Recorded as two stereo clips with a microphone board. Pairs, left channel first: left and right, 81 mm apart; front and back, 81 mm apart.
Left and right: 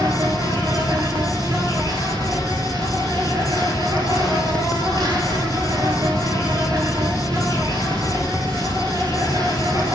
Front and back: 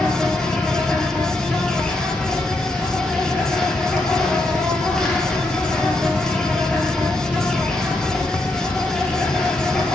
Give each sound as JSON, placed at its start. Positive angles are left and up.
{"t": 0.0, "sound": "an insect", "azimuth_deg": -80, "distance_m": 1.4}